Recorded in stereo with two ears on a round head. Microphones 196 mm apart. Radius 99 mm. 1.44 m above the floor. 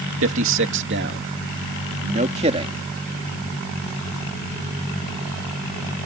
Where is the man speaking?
65° right (ahead or behind); by 2.8 s 25° right (ahead or behind).